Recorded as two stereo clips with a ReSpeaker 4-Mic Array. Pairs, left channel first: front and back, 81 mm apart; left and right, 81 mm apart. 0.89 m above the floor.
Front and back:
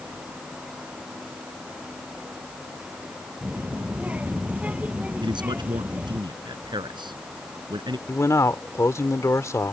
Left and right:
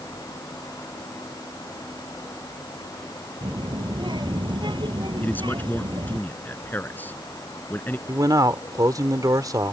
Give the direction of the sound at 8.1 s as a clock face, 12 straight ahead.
2 o'clock.